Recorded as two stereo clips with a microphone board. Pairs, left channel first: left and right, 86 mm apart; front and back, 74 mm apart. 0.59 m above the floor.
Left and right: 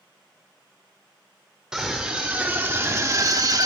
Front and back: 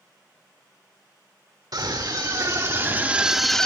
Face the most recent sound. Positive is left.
turn(degrees=-75)